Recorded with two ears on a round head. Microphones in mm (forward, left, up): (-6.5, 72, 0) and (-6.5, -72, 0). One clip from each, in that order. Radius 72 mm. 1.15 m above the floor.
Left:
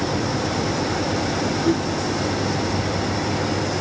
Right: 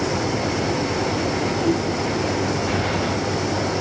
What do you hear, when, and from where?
1.6 s a whoosh: 50° left (ahead or behind), 4 m